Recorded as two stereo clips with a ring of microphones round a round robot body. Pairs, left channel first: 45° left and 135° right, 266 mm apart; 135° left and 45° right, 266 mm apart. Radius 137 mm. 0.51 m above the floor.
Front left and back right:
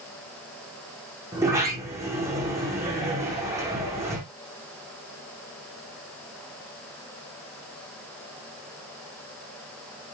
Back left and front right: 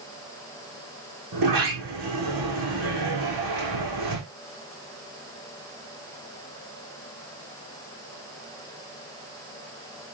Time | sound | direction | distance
1.3 | a sliding door | 55° right | 5 m